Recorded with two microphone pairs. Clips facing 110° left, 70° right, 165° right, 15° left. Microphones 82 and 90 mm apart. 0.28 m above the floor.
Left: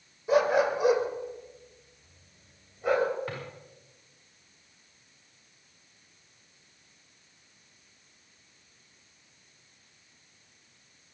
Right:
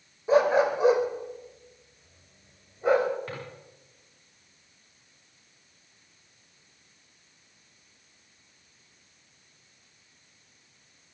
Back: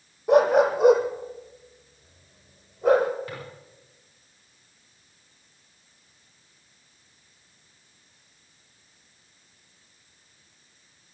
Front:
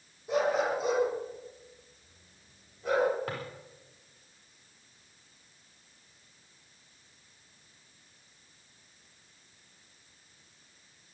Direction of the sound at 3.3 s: 30° left.